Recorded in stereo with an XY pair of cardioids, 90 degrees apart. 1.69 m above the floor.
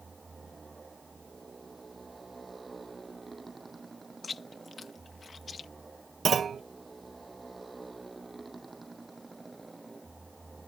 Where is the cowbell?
I don't hear a cowbell.